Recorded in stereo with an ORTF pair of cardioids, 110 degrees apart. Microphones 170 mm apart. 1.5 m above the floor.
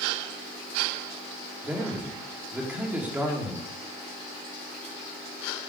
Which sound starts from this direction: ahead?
A man speaking, at 1.6 s.